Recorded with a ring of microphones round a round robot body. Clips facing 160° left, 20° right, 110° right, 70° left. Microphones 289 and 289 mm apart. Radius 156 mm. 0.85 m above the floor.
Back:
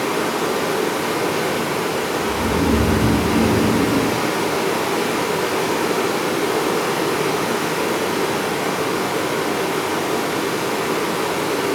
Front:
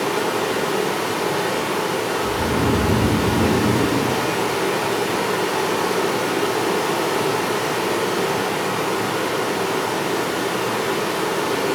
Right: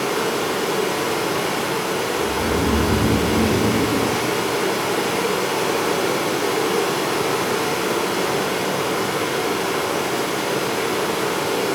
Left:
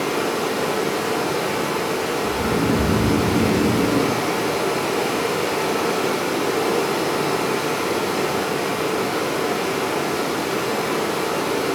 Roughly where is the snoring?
Behind.